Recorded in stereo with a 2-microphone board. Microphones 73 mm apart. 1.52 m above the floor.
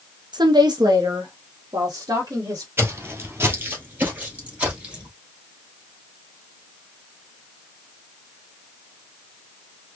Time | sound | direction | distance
0.3 | a woman speaking | 70° right (ahead or behind) | 0.6 m
2.8 | footsteps | 30° right (ahead or behind) | 1.7 m